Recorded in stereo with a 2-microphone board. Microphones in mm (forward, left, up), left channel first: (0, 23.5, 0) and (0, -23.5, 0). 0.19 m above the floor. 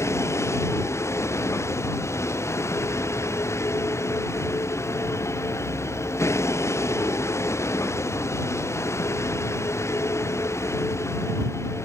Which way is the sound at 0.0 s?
85° left.